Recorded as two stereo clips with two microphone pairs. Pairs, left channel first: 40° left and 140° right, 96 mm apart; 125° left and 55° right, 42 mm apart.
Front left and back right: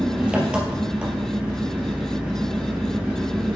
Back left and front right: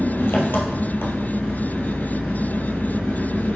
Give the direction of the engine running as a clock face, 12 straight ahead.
7 o'clock.